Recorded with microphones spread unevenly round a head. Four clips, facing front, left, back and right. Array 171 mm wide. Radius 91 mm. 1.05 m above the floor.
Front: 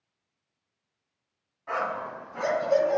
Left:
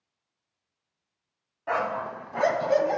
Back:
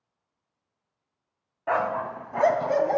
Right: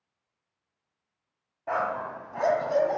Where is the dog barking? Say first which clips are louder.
Left 1 dB, back 5 dB; 175° left, 2 m; by 3.0 s 165° left, 2.5 m.